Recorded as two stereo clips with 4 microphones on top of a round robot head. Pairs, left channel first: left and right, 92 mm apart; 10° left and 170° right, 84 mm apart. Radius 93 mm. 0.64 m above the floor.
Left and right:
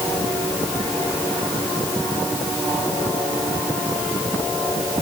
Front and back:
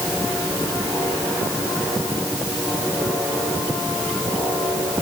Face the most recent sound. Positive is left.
No sound to turn to.